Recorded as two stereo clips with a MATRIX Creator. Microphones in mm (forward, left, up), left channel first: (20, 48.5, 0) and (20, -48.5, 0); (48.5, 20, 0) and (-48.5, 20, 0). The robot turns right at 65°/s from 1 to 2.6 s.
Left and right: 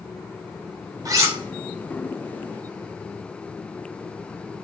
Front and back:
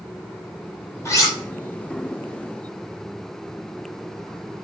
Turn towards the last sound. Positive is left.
turn(degrees=50)